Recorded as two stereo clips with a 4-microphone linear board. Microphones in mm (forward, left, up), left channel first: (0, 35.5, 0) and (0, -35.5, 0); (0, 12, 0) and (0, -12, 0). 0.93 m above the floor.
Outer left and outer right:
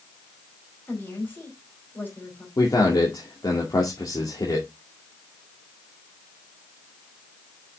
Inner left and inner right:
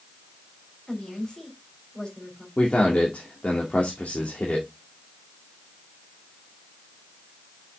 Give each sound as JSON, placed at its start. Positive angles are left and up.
{"t": 0.9, "sound": "a woman speaking", "side_deg": 30, "distance_m": 4.0}
{"t": 2.6, "sound": "a man speaking", "side_deg": 75, "distance_m": 2.0}